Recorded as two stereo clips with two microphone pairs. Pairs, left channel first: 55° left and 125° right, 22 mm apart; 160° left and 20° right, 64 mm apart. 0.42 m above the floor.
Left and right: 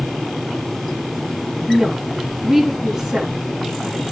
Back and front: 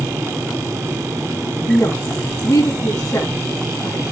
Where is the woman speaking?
150° left, 3.5 m.